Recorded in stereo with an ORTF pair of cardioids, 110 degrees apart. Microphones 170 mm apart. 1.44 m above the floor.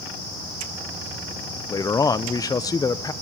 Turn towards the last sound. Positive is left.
turn(degrees=20)